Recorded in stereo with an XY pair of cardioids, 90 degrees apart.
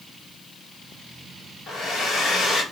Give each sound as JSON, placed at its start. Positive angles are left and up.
{"t": 1.7, "sound": "a hair dryer", "azimuth_deg": 65, "distance_m": 2.5}